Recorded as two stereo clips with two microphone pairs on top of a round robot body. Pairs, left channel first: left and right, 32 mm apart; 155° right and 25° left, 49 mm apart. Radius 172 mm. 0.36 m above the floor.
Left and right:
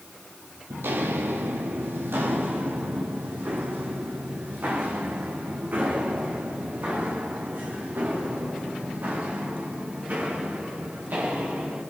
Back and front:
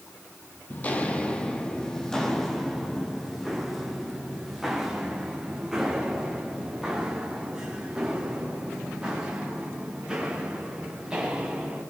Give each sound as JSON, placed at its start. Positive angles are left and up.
{"t": 0.7, "sound": "footsteps", "azimuth_deg": -95, "distance_m": 1.2}